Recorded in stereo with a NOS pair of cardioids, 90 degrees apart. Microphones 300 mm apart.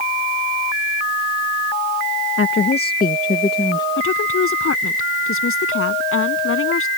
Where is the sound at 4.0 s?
45° left.